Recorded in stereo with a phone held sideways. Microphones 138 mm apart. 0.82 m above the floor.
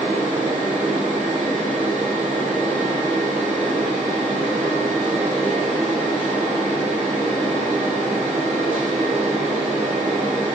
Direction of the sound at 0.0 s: 70° right (ahead or behind).